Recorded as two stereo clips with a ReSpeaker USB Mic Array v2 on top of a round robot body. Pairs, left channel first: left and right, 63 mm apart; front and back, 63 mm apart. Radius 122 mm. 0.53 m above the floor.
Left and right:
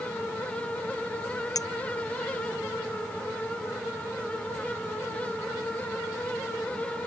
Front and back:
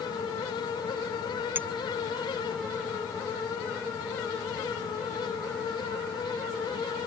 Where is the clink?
120° left.